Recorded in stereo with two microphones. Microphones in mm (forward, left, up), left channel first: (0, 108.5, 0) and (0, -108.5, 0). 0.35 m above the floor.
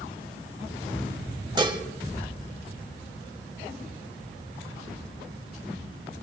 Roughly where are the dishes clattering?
Right.